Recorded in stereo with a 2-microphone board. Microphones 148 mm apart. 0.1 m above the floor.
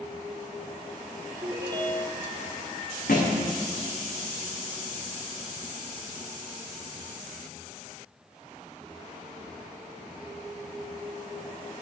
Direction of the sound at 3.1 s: 75° left (ahead or behind).